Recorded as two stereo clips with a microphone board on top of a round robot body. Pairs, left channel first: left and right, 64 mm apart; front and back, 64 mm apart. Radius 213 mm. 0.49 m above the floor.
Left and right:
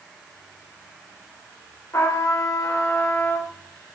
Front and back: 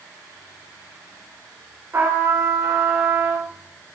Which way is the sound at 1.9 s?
130° left.